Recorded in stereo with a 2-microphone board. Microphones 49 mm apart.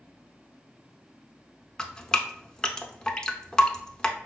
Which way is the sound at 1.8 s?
15° left (ahead or behind).